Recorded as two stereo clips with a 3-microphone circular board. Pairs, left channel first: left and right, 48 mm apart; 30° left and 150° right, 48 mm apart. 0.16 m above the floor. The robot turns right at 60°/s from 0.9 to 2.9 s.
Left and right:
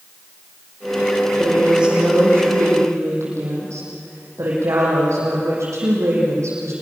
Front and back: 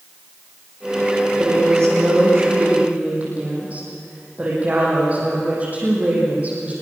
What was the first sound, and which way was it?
A woman speaking, 175° left.